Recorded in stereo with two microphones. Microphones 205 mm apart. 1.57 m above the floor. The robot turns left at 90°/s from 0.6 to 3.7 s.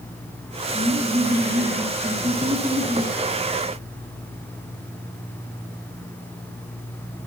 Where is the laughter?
30° left, 2.5 m; by 3.1 s 170° left, 2.5 m.